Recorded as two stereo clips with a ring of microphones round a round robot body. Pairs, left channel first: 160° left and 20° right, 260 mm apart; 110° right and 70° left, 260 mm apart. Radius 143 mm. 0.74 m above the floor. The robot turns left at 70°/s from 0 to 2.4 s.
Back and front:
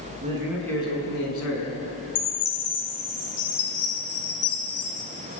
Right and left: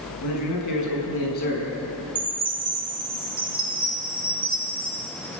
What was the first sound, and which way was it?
A man speaking, 85° right.